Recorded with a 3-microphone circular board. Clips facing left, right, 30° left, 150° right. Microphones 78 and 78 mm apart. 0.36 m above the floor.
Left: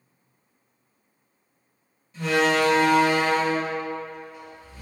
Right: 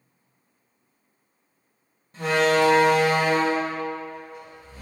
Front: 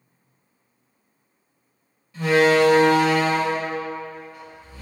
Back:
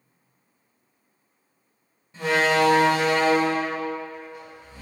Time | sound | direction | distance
2.1 | a door slam | 100° right | 1.3 m